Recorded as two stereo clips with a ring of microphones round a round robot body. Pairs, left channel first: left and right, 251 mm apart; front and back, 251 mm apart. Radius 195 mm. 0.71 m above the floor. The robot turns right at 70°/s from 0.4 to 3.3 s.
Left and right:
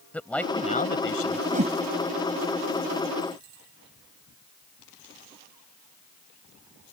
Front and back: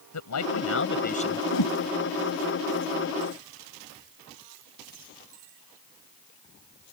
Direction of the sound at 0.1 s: 5° left.